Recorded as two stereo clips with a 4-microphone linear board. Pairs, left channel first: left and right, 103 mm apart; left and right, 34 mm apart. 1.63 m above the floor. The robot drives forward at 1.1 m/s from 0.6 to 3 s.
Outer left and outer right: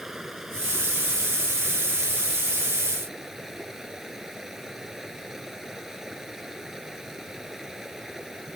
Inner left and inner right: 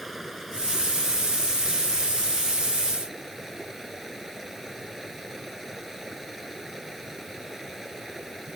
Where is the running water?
5° right (ahead or behind); by 8.6 s centre (ahead or behind).